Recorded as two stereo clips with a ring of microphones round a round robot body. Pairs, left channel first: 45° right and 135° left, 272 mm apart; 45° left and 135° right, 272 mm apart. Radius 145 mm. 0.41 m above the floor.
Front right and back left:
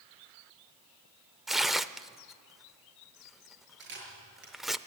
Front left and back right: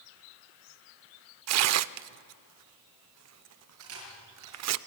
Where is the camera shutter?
175° right, 6.5 m.